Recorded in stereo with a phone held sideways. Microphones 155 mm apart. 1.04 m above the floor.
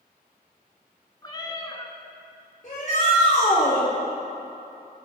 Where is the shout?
55° left (ahead or behind), 3.5 m.